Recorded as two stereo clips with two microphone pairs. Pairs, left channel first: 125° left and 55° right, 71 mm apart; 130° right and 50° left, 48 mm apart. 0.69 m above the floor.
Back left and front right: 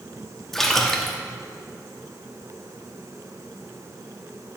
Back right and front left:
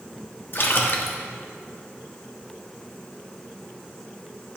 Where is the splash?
150° right, 0.9 m.